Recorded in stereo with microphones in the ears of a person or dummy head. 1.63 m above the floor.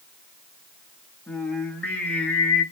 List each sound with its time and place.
1.3 s singing: 10° left (ahead or behind), 0.8 m